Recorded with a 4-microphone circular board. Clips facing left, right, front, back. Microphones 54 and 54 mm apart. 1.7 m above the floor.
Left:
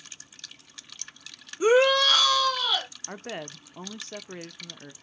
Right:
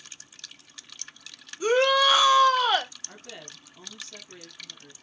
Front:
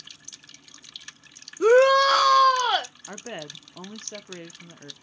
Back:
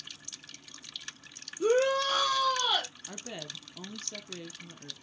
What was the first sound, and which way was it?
A shout, 20° left.